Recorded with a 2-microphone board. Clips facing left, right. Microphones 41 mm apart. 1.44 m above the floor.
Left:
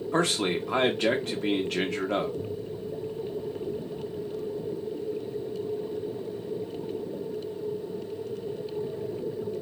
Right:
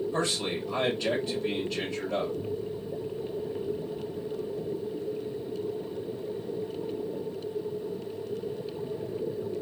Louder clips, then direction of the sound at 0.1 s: Left 4 dB; 65° left (ahead or behind).